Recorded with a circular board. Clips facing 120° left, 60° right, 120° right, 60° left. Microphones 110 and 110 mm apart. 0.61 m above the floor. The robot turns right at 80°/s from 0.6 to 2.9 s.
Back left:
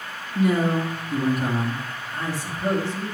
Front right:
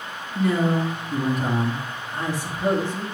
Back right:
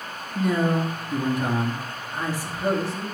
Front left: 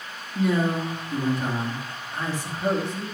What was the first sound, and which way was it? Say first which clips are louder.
A man speaking: even, back right 1 dB; 140° left.